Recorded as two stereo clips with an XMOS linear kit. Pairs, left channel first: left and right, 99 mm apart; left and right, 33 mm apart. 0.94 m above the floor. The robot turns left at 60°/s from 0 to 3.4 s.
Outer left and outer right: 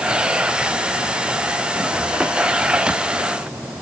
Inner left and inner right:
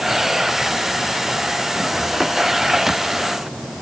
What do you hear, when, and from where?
Only background noise.